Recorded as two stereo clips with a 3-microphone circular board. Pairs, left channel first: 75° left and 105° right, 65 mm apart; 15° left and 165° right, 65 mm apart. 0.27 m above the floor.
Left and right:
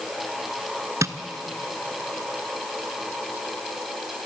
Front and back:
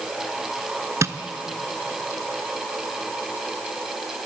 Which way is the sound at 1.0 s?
135° right.